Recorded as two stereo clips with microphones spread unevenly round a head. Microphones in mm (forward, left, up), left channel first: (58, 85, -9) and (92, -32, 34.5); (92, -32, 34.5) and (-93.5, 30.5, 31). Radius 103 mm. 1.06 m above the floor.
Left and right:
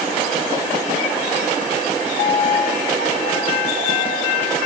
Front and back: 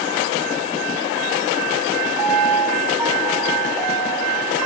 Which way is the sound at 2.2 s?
120° right.